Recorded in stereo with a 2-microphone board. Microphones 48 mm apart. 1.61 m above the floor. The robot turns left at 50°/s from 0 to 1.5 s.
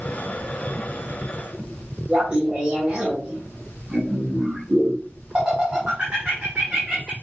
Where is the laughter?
20° right (ahead or behind), 1.1 m.